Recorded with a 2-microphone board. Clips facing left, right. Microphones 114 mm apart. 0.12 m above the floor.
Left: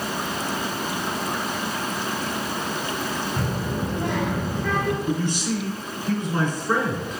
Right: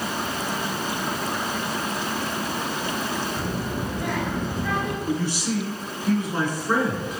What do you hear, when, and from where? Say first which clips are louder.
3.4 s a child speaking: left 1 dB; 50° left (ahead or behind), 1.7 m; by 5.0 s 20° right (ahead or behind), 1.4 m
5.0 s a man speaking: left 1 dB; 10° right (ahead or behind), 1.0 m